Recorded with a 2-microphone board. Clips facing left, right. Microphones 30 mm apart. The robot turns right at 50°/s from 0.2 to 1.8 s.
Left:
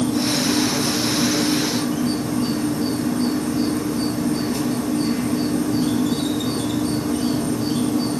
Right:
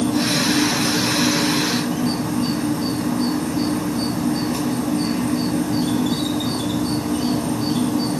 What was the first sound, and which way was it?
An insect, 115° right.